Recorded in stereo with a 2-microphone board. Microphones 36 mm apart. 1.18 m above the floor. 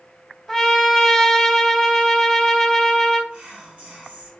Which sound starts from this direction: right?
Whispering, at 3.3 s.